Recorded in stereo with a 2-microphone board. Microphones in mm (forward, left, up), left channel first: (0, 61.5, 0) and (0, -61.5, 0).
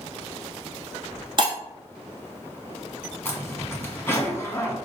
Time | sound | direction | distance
1.4 | breaking glass | 40° right (ahead or behind) | 1.1 m
3.2 | a zipper | 20° left (ahead or behind) | 1.1 m